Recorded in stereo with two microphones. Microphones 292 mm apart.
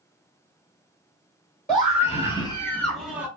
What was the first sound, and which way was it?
A scream, 25° left (ahead or behind).